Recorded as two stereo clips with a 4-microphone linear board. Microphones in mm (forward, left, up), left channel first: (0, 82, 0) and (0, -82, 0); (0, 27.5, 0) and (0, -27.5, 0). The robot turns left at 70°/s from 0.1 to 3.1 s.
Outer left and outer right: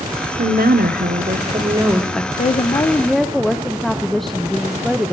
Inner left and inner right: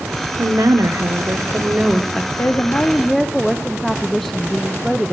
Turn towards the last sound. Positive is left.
turn(degrees=0)